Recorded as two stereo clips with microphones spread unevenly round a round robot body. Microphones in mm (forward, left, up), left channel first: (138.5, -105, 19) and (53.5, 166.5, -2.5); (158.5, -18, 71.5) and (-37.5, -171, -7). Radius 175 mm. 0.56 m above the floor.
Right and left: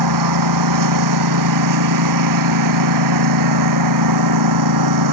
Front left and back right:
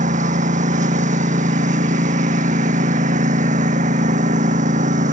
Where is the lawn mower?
150° left.